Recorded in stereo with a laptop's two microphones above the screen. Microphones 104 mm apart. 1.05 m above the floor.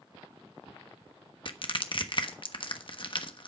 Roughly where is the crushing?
Left.